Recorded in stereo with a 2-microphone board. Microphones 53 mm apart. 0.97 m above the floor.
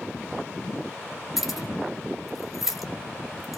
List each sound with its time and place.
1.4 s keys jangling: 5° right (ahead or behind), 0.9 m